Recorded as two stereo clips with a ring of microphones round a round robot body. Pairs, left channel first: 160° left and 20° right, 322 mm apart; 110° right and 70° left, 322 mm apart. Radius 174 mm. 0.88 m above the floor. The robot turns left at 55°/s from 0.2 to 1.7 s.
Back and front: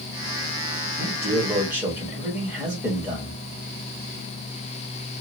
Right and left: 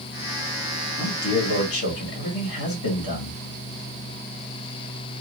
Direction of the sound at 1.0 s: 65° right.